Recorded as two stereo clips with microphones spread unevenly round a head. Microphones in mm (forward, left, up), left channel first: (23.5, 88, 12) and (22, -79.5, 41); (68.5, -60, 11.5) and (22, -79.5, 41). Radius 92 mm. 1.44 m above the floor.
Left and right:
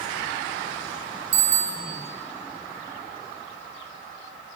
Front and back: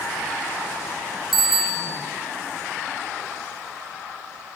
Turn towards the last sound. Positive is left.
turn(degrees=-80)